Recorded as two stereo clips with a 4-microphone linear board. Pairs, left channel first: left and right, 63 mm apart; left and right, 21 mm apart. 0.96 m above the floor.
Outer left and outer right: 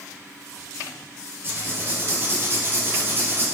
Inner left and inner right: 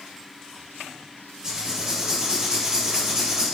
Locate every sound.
1.4 s writing: 35° right (ahead or behind), 3 m